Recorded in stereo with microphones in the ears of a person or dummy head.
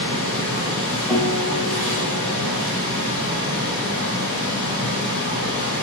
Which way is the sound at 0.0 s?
10° right (ahead or behind).